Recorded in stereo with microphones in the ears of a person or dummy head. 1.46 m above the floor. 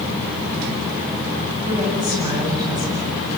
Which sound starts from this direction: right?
A woman speaking, at 1.6 s.